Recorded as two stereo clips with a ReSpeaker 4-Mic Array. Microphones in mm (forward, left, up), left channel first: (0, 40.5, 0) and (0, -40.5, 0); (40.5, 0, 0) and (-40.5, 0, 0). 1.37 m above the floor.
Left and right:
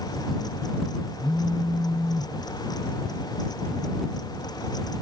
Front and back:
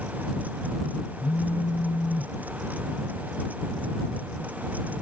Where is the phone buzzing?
5° left.